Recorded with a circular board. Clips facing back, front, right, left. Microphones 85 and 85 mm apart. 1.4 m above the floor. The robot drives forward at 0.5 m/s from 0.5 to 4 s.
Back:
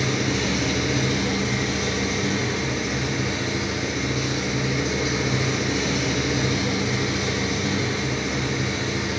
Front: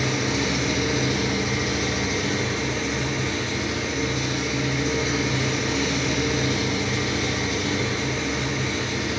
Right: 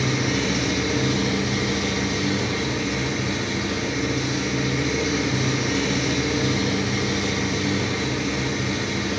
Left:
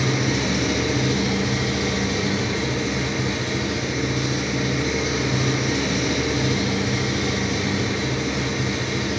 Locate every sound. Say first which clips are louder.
0.0 s an engine running: even, left 1 dB; 65° left, 2.0 m; by 9.2 s 115° left, 2.0 m